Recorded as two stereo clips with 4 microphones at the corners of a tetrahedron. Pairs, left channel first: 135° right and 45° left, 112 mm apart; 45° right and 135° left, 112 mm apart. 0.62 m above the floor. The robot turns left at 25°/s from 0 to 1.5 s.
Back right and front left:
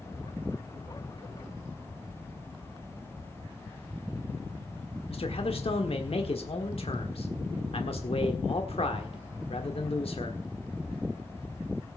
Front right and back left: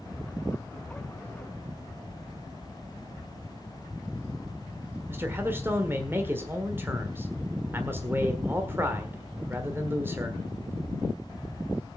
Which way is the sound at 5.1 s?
155° right.